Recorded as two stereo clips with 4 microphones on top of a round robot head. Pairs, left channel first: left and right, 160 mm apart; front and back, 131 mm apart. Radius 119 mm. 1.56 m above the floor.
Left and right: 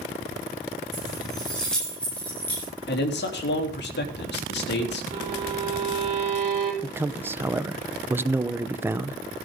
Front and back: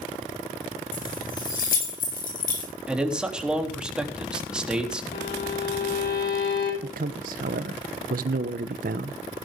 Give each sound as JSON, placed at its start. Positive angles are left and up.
{"t": 0.9, "sound": "keys jangling", "azimuth_deg": 0, "distance_m": 8.5}
{"t": 2.9, "sound": "a man speaking", "azimuth_deg": 95, "distance_m": 3.0}
{"t": 5.1, "sound": "a violin", "azimuth_deg": -35, "distance_m": 5.5}
{"t": 6.8, "sound": "a man speaking", "azimuth_deg": -165, "distance_m": 0.7}